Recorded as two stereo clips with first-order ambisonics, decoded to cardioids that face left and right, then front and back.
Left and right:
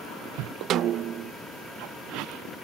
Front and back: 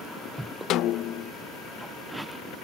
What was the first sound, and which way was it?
A snare drum, 40° right.